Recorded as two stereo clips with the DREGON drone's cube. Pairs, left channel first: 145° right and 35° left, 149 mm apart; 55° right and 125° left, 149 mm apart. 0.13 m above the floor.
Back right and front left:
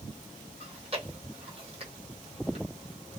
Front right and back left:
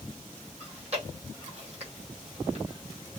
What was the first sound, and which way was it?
Chewing, 80° left.